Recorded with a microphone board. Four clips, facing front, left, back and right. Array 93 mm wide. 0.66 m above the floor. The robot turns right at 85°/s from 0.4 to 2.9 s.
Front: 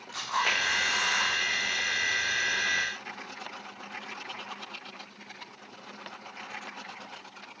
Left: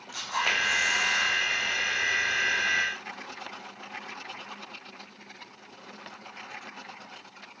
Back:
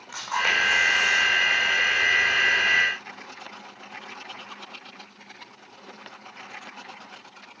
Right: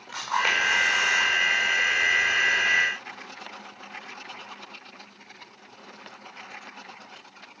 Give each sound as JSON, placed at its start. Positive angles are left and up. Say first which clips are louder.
{"t": 0.1, "sound": "a camera shutter", "louder": "right 4 dB, back 3 dB", "azimuth_deg": -125, "distance_m": 7.5}